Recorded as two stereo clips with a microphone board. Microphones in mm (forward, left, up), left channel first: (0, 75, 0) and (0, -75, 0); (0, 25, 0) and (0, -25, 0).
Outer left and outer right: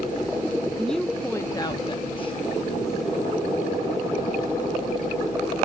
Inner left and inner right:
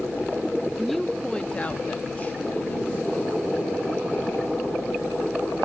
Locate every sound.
0.8 s a woman speaking: centre (ahead or behind), 0.6 m; by 4.9 s 40° left (ahead or behind), 2 m